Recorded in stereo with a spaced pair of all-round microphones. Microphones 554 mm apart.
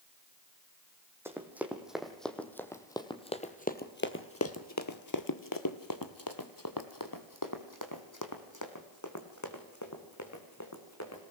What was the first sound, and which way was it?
Running footsteps, 5° right (ahead or behind).